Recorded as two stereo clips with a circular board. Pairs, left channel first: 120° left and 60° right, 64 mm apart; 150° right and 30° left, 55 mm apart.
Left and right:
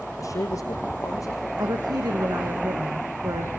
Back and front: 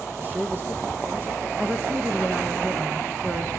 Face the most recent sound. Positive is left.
turn(degrees=-45)